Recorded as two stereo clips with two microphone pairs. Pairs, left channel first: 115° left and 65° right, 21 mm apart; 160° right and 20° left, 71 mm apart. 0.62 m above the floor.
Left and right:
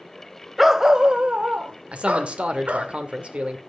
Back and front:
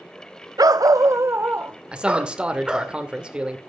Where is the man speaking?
60° right, 2.5 m.